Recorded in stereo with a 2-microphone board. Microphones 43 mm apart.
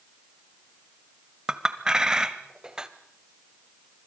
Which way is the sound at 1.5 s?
15° right (ahead or behind).